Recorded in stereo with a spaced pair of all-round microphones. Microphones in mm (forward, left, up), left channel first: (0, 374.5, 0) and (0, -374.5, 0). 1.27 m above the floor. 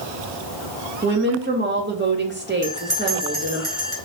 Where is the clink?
I don't hear a clink.